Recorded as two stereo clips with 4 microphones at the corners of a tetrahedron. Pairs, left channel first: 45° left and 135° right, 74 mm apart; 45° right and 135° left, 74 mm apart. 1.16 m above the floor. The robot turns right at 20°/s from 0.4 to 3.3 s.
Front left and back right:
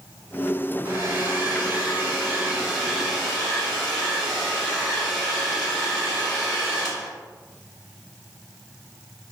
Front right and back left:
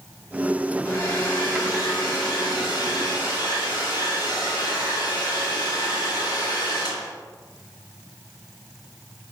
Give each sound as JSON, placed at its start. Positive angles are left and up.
{"t": 0.8, "sound": "a hair dryer", "azimuth_deg": -85, "distance_m": 1.6}